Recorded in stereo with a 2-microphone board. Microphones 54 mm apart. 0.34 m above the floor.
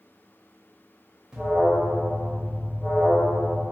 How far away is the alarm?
About 0.8 m.